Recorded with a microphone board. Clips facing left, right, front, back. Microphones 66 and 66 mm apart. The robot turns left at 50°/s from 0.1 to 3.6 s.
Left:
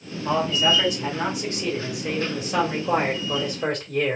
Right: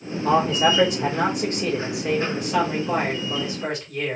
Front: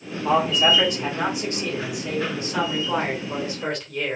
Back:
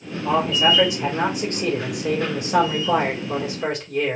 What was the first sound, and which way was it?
A man speaking, 75° right.